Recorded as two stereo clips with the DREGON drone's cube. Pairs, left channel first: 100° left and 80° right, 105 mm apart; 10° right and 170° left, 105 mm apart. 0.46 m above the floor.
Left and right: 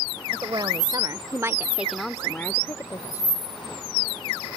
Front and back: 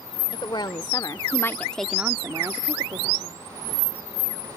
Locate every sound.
0.3 s a woman speaking: 45° right; by 3.5 s 145° left